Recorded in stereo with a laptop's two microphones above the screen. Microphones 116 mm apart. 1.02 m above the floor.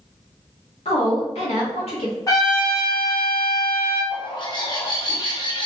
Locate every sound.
0.8 s a woman speaking: 65° left (ahead or behind), 2 m
2.3 s a trumpet: 35° left (ahead or behind), 2 m
4.1 s a bird: 40° left (ahead or behind), 1.2 m